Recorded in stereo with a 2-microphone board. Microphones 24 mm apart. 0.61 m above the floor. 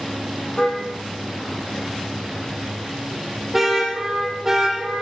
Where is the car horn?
15° left (ahead or behind), 9 m; by 5.0 s 25° right (ahead or behind), 9 m.